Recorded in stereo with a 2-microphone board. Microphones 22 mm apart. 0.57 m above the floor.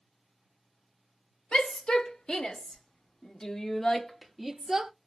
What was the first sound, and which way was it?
A shout, 70° left (ahead or behind).